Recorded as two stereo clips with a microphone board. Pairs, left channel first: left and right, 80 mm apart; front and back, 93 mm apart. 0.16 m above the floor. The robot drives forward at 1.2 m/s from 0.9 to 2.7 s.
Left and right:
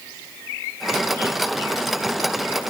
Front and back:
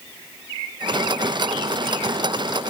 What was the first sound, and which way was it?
Only background noise.